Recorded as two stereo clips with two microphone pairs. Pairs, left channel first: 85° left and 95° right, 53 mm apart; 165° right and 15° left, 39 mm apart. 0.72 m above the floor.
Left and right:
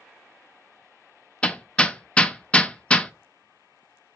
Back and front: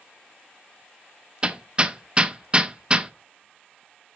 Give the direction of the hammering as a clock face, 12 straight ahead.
11 o'clock.